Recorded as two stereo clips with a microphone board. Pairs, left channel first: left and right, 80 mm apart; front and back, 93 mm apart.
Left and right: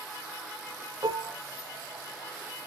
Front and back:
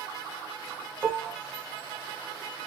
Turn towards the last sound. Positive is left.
turn(degrees=-95)